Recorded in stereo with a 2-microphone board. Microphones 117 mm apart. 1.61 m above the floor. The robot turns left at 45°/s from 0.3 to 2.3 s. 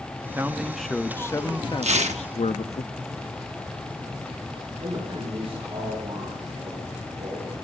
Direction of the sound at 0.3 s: 160° right.